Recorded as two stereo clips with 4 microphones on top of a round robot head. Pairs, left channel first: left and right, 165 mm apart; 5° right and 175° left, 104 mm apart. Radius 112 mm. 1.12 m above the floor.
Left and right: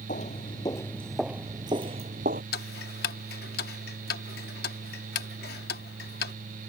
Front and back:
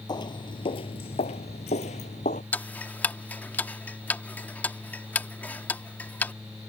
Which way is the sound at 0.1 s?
40° left.